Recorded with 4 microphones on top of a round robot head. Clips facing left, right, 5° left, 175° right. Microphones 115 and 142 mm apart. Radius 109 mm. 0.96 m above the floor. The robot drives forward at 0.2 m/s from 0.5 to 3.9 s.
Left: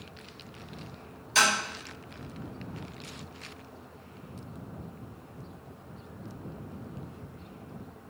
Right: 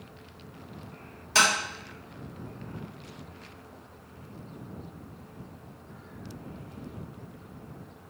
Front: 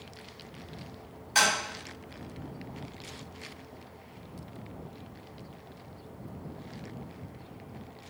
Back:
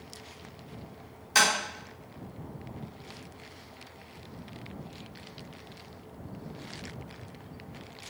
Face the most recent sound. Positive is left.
turn(degrees=-135)